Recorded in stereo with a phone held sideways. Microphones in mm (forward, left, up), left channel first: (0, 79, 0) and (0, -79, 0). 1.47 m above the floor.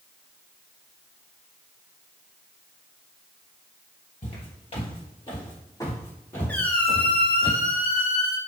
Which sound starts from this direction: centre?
A squeak, at 6.5 s.